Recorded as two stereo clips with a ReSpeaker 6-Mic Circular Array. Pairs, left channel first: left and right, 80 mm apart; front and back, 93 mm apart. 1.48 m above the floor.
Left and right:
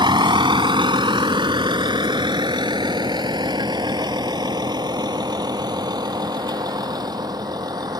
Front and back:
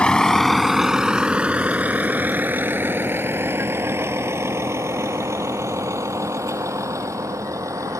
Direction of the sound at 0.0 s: 80° right.